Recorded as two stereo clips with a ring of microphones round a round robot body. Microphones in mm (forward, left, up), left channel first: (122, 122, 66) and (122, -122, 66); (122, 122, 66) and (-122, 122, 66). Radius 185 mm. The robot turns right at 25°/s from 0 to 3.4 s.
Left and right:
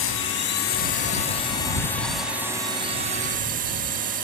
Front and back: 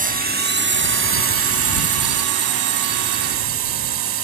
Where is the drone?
125° left; by 4.2 s 150° right.